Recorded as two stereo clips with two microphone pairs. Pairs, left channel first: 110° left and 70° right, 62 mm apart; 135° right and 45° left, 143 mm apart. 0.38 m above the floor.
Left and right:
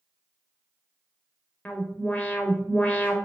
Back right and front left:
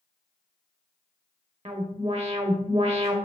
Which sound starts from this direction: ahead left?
An alarm, at 1.6 s.